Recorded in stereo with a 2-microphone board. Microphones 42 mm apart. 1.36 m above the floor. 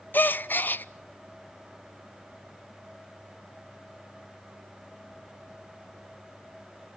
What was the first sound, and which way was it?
A gasp, 50° left (ahead or behind).